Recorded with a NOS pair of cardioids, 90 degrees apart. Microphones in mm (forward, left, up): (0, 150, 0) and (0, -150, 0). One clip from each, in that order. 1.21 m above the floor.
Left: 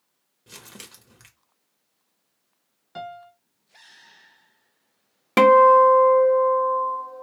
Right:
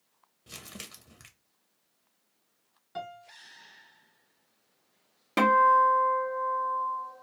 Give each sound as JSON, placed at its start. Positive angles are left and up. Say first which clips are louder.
{"t": 0.5, "sound": "crumpling", "louder": "left 1 dB", "azimuth_deg": 0, "distance_m": 0.8}
{"t": 3.0, "sound": "a piano", "louder": "left 4 dB", "azimuth_deg": 10, "distance_m": 0.6}
{"t": 5.4, "sound": "a guitar", "louder": "left 8 dB", "azimuth_deg": 35, "distance_m": 0.6}